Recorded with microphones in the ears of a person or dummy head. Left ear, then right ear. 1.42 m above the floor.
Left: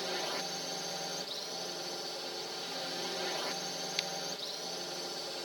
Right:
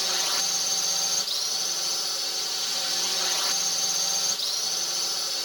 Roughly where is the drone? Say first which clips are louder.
Right 10 dB; right.